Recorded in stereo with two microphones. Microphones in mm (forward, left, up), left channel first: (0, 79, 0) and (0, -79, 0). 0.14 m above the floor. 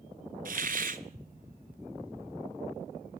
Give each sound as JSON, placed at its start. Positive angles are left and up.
{"t": 0.5, "sound": "a hiss", "side_deg": -60, "distance_m": 0.7}